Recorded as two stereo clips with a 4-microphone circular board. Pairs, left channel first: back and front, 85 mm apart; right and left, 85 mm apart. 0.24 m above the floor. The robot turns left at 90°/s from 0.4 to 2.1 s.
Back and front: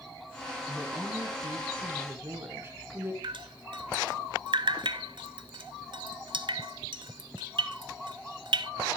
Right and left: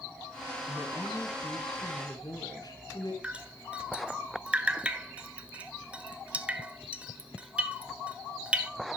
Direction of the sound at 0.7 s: 70° left.